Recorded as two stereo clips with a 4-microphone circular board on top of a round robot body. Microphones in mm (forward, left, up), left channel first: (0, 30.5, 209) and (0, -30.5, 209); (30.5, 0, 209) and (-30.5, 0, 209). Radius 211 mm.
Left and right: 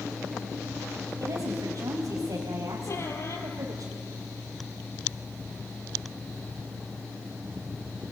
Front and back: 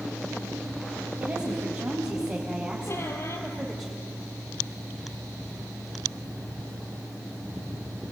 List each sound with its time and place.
1.2 s a woman speaking: 120° right, 4 m; by 3.9 s 95° right, 3.5 m
2.9 s a squeak: 45° left, 2.5 m